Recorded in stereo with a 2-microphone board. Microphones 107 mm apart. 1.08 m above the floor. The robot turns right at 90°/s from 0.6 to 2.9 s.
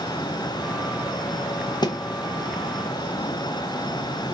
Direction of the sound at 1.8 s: 45° left (ahead or behind).